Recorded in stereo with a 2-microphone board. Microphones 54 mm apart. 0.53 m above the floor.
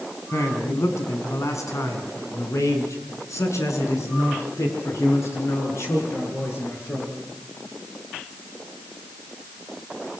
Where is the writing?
No writing in this recording.